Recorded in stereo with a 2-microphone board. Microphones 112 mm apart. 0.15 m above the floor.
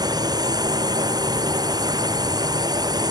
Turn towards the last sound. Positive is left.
turn(degrees=-35)  # may be behind; listen again after turning